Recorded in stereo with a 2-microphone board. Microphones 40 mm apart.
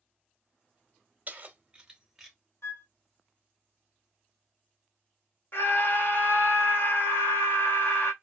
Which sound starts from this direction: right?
Keys jangling, at 1.3 s.